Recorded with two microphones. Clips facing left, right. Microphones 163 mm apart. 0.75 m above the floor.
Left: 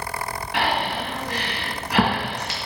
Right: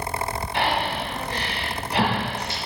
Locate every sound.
0.5 s breathing: 85° left, 3 m